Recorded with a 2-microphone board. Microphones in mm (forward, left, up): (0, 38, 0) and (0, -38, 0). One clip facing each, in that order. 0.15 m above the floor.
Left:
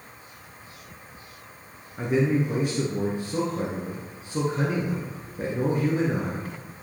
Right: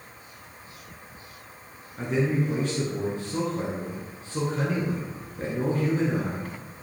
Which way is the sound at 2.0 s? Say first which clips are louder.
Left 2 dB; 15° left (ahead or behind).